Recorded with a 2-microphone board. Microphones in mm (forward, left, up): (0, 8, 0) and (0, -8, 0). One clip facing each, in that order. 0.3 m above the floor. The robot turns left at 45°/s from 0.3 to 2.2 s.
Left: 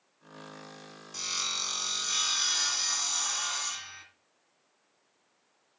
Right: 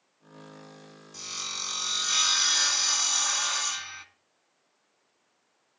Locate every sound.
1.1 s sawing: 25° left, 1.4 m; by 4.0 s 25° right, 1.4 m